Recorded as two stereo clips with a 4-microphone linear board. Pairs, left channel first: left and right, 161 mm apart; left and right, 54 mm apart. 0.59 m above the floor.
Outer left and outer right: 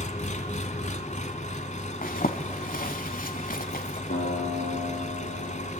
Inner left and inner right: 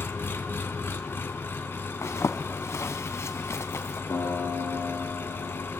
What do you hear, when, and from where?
0.0 s an engine running: 50° left (ahead or behind), 1.5 m
2.0 s a zipper: 65° left (ahead or behind), 1.4 m
4.1 s a guitar: 90° left, 7 m